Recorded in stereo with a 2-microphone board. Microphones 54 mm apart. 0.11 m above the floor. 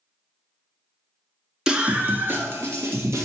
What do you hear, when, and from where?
1.7 s a scream: 15° right (ahead or behind), 1.2 m; by 3.3 s 55° right (ahead or behind), 3 m